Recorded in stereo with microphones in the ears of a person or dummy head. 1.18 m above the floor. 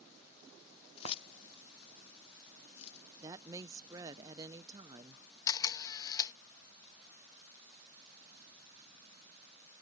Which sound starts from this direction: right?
A woman speaking, at 3.2 s.